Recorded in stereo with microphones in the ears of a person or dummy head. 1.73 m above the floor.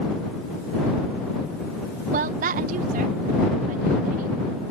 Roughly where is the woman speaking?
Right.